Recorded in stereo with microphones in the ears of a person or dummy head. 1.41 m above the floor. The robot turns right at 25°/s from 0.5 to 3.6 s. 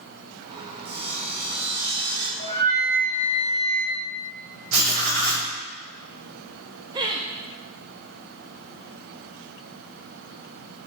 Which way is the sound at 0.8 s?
95° right.